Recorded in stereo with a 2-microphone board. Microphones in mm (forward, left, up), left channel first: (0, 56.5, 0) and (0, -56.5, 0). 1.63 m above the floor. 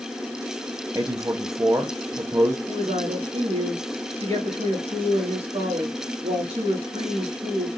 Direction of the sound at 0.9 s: 30° right (ahead or behind).